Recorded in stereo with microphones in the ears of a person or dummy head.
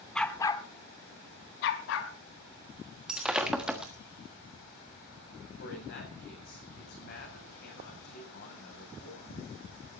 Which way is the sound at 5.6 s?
55° left (ahead or behind).